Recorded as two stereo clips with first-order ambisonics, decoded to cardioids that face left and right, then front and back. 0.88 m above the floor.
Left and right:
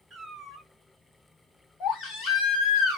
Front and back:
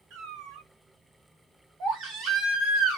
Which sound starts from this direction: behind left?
A baby crying, at 1.8 s.